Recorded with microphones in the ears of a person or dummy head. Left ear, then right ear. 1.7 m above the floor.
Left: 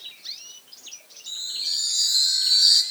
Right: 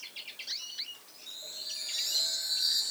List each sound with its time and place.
1.3 s a chime: 20° left (ahead or behind), 1.6 m